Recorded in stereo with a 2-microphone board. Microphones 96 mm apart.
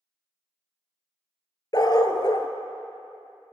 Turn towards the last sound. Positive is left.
turn(degrees=45)  # may be behind; listen again after turning